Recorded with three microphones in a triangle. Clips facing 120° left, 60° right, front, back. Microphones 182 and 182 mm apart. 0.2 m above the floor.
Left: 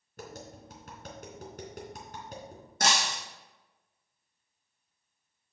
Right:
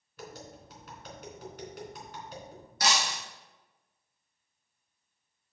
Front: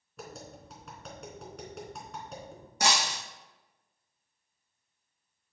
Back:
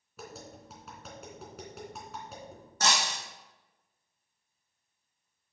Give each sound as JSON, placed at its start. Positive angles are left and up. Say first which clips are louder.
{"t": 0.2, "sound": "tapping", "louder": "left 1 dB, front 1 dB", "azimuth_deg": 95, "distance_m": 2.5}
{"t": 2.8, "sound": "breaking glass", "louder": "left 1 dB, front 1 dB", "azimuth_deg": 80, "distance_m": 3.5}